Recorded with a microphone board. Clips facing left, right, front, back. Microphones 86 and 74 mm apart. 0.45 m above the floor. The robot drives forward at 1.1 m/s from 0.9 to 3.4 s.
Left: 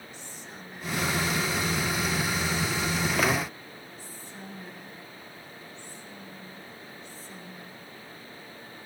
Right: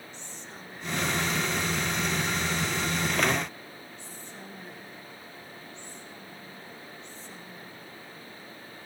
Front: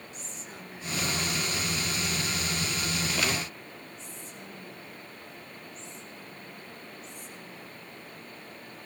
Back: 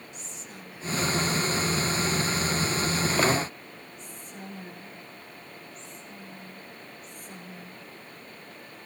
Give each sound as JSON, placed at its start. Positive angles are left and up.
{"t": 0.1, "sound": "whispering", "azimuth_deg": 10, "distance_m": 1.4}